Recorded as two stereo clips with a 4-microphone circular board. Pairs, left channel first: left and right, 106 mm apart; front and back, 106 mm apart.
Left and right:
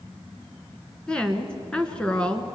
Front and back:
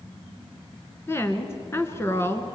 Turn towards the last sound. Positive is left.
turn(degrees=20)